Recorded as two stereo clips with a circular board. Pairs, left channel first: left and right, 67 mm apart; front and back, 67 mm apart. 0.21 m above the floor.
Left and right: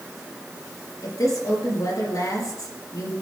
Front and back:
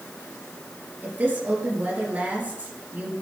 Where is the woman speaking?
115° left, 4.5 m.